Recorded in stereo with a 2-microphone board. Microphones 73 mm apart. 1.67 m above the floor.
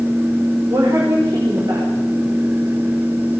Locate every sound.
0.7 s a woman speaking: 65° right (ahead or behind), 5.5 m